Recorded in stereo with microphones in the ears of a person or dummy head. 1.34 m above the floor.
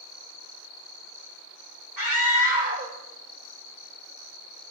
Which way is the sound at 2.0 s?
25° right (ahead or behind).